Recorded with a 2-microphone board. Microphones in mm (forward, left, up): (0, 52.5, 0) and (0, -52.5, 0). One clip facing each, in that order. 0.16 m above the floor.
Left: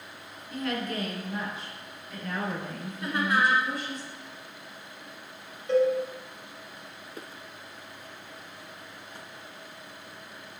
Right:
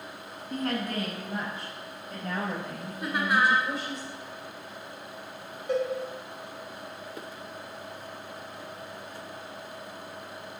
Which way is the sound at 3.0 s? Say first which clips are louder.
Even; 10° right (ahead or behind).